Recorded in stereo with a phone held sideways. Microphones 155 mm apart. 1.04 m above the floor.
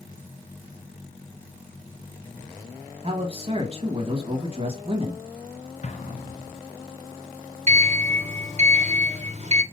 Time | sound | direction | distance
3.0 | a man speaking | 40° right (ahead or behind) | 1.3 m
5.8 | an explosion | 50° left (ahead or behind) | 0.9 m
7.7 | a sliding door | 45° right (ahead or behind) | 1.0 m